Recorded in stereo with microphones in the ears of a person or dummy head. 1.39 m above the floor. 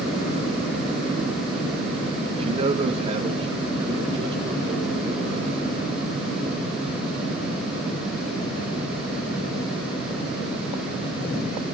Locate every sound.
2.3 s a man speaking: 30° right (ahead or behind), 1.5 m; by 6.0 s 25° right (ahead or behind), 6 m